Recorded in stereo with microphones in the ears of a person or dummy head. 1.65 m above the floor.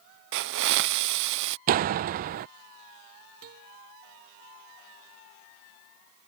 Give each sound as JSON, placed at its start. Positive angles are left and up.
{"t": 0.3, "sound": "a hiss", "side_deg": -65}
{"t": 1.7, "sound": "a door slam", "side_deg": -45}
{"t": 3.4, "sound": "a guitar", "side_deg": -55}